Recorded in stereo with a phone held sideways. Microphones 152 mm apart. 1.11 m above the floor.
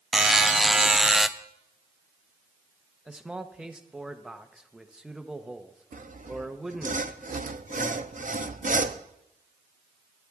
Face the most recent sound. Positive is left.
turn(degrees=-60)  # may be behind; listen again after turning